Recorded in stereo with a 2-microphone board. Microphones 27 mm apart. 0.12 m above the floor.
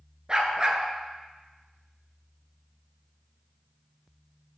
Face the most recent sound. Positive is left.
turn(degrees=-30)  # may be behind; listen again after turning